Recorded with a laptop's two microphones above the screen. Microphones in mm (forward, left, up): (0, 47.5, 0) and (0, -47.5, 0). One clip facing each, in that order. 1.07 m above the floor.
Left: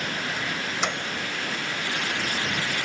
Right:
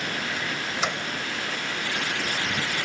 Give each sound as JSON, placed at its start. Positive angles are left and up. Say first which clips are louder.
{"t": 0.8, "sound": "a microwave", "louder": "even", "side_deg": -5}